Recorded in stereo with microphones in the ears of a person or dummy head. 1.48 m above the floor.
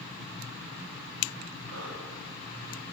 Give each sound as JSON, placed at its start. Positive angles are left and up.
{"t": 1.7, "sound": "breathing", "side_deg": -85, "distance_m": 3.5}